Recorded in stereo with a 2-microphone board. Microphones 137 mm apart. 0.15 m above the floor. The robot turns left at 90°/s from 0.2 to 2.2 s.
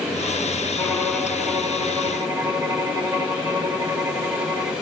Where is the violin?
35° left, 0.9 m; by 4.7 s 95° right, 0.9 m.